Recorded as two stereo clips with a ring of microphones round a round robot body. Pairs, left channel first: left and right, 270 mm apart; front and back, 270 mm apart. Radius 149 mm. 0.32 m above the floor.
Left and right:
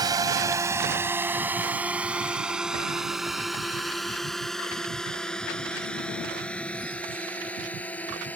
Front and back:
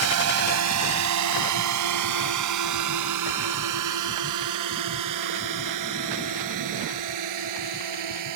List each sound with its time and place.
0.0 s a drone: 165° right; by 8.4 s 175° left